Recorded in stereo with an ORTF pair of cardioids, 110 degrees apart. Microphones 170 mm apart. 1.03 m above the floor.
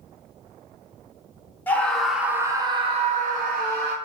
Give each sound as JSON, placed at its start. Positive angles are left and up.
{"t": 1.7, "sound": "a scream", "azimuth_deg": 10, "distance_m": 1.1}